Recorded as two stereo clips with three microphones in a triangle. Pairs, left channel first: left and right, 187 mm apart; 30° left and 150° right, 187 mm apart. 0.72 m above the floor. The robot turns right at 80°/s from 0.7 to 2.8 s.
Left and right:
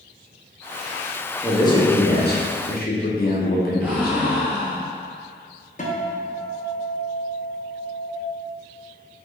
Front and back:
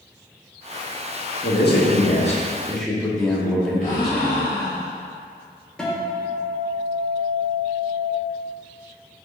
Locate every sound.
1.4 s a man speaking: 10° left, 0.9 m; by 4.5 s 120° left, 0.9 m
3.8 s a gasp: 10° right, 1.8 m
5.8 s a guitar: 115° left, 0.9 m